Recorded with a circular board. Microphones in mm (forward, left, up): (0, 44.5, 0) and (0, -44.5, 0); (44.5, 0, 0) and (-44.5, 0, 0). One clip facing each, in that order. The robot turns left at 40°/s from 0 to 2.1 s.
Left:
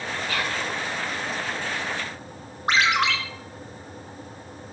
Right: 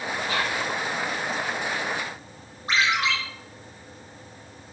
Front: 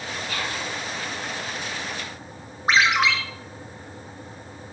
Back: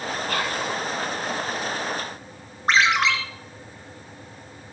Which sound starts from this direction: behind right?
Whispering, at 0.3 s.